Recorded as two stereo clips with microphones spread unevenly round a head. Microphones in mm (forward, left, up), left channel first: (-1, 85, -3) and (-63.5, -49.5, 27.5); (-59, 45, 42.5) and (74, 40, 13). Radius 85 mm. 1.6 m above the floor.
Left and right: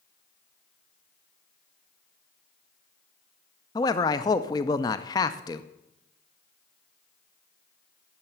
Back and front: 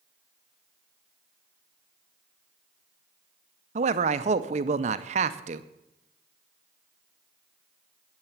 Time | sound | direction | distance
3.8 | a man speaking | 5° right | 0.6 m